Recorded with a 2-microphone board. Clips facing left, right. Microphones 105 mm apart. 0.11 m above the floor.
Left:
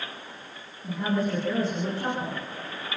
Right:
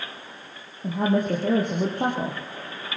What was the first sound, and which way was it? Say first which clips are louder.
A woman speaking: right 4 dB; 55° right (ahead or behind).